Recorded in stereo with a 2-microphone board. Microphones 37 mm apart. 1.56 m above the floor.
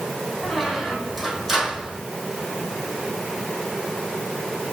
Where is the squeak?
5° right (ahead or behind), 2.5 m.